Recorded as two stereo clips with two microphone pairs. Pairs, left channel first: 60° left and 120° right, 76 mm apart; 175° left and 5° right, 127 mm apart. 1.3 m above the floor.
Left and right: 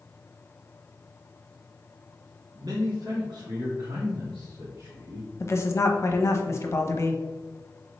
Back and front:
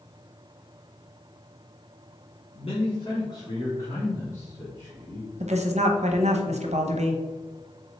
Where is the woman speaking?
10° left, 0.7 m.